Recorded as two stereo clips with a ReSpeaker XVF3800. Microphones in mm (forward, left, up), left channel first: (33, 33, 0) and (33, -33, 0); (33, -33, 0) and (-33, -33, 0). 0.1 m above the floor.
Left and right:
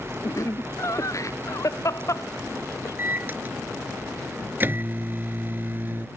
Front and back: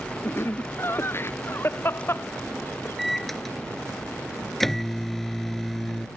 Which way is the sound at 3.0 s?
85° right.